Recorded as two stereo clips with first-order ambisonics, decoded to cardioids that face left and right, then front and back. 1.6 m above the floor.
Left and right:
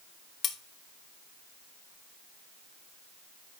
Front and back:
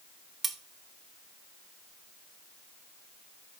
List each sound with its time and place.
0.4 s cutlery clinking: 120° left, 1.0 m